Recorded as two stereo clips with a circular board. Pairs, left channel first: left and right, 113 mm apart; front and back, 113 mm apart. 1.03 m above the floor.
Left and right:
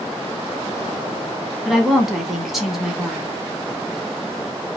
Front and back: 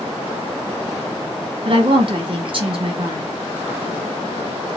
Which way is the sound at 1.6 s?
Straight behind.